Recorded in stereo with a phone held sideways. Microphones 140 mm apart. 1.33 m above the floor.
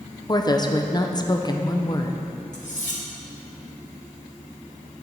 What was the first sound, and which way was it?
A woman speaking, 30° left (ahead or behind).